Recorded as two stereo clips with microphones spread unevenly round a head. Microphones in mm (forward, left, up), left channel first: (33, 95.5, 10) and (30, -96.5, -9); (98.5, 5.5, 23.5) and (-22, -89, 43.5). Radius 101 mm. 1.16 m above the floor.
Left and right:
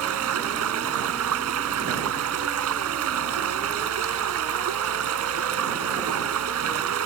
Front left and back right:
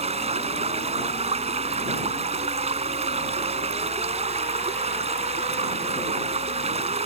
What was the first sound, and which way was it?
Running water, 95° right.